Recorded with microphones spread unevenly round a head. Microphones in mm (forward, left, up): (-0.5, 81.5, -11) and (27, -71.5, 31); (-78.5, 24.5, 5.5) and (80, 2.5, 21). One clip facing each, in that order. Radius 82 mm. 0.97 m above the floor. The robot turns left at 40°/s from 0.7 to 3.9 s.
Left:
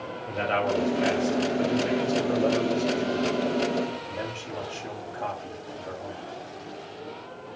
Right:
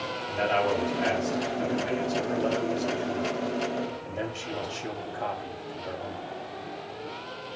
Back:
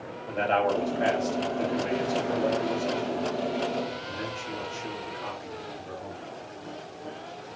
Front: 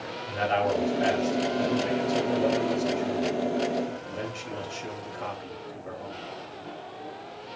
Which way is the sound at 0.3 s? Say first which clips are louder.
Even, back 1 dB; 125° left.